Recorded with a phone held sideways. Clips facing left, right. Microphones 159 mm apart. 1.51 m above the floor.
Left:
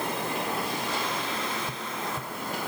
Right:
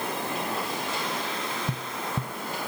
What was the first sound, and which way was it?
Tapping, 70° right (ahead or behind).